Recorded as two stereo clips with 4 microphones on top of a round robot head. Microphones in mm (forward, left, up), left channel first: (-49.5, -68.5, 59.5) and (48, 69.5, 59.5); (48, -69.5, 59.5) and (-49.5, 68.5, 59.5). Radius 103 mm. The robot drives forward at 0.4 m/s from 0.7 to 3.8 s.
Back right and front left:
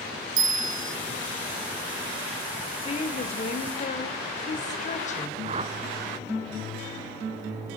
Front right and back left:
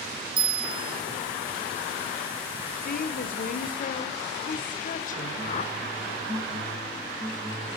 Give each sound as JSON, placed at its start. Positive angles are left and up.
{"t": 0.4, "sound": "a bell", "azimuth_deg": 95, "distance_m": 1.6}
{"t": 2.8, "sound": "a woman speaking", "azimuth_deg": -75, "distance_m": 2.5}
{"t": 5.4, "sound": "a whoosh", "azimuth_deg": 0, "distance_m": 1.1}